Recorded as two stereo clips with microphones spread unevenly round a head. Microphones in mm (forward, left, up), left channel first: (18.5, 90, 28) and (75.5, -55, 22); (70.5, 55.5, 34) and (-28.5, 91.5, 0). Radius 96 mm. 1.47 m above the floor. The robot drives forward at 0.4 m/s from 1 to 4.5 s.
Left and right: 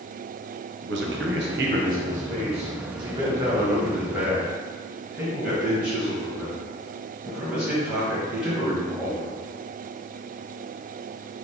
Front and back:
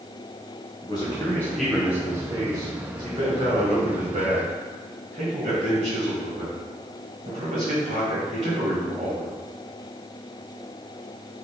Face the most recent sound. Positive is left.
turn(degrees=-155)